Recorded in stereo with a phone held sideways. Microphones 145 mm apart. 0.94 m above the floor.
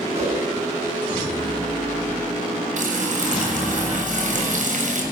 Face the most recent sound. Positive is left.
turn(degrees=-60)  # may be behind; listen again after turning